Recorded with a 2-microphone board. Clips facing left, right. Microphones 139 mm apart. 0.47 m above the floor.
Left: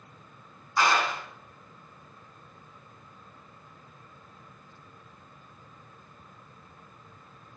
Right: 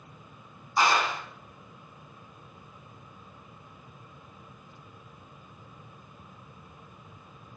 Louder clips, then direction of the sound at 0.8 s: Even; 20° right (ahead or behind).